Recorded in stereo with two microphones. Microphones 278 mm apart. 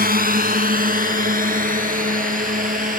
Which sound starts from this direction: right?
A drone, at 0.0 s.